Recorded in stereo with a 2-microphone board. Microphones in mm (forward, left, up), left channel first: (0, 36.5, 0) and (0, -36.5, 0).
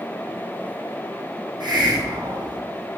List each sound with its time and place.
1.6 s a hiss: 90° right, 1.8 m